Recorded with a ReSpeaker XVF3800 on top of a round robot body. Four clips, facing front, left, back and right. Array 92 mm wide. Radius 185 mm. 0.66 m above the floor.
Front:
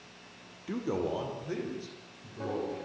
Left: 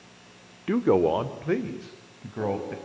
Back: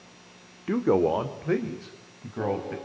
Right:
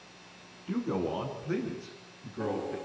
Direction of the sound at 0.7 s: 120° left.